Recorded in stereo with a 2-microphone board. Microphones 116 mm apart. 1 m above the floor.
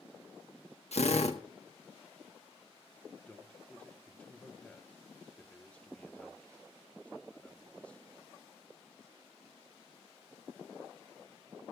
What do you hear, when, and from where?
0.9 s a drill: 70° left (ahead or behind), 1.4 m
3.3 s a man speaking: 10° left (ahead or behind), 0.8 m